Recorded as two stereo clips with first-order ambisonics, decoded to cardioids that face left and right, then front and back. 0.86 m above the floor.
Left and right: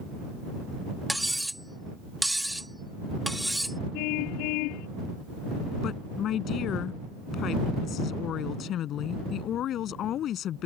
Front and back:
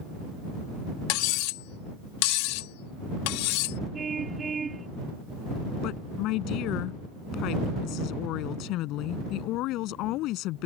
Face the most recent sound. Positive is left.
turn(degrees=35)